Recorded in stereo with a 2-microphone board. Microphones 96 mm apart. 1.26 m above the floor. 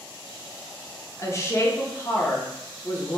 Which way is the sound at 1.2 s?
30° left (ahead or behind).